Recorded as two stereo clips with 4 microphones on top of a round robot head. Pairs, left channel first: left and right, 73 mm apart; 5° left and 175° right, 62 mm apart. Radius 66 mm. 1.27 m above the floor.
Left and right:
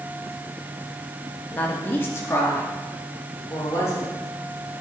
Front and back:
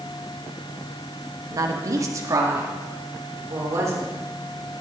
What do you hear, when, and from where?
1.5 s a woman speaking: 160° left, 1.6 m; by 4.1 s 145° left, 4.5 m